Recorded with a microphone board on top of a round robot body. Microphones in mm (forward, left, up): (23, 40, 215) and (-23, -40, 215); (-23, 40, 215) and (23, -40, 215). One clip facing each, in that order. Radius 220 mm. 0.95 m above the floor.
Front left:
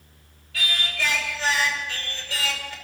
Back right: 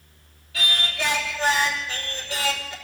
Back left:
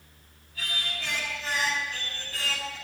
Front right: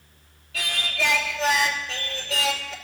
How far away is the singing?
About 2.5 m.